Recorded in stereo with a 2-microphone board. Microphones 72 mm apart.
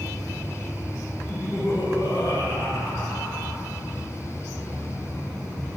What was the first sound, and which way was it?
Laughter, 50° left (ahead or behind).